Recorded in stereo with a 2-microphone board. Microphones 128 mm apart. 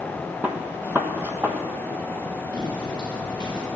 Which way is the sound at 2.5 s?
35° right (ahead or behind).